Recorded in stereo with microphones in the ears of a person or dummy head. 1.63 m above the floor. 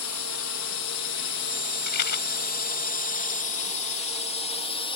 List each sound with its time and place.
0.0 s a drone: 65° left (ahead or behind); by 5.0 s 25° left (ahead or behind)
1.9 s a rattle: 55° left (ahead or behind)